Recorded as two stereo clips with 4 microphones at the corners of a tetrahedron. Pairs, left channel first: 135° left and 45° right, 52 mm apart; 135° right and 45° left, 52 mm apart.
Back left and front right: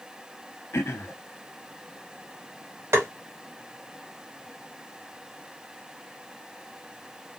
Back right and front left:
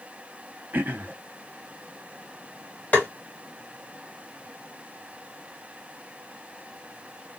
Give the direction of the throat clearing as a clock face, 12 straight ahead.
9 o'clock.